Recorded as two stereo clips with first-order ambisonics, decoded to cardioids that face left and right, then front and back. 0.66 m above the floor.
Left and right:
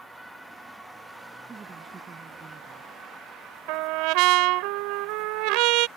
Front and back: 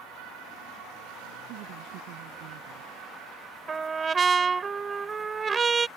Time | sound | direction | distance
1.5 | a woman speaking | 165° right | ?
3.7 | a trumpet | 110° right | ?